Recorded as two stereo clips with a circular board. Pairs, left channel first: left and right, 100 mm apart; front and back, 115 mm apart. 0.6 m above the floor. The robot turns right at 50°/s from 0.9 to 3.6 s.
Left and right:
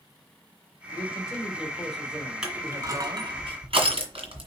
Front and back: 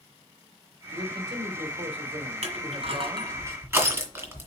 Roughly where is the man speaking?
Behind left.